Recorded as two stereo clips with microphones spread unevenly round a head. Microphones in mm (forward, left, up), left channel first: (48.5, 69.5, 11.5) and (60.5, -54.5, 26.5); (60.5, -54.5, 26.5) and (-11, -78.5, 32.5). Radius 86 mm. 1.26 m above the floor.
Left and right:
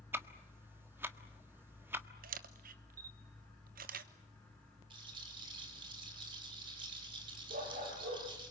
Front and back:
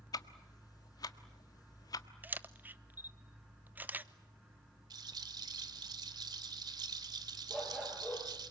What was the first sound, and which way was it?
Ticking, 15° right.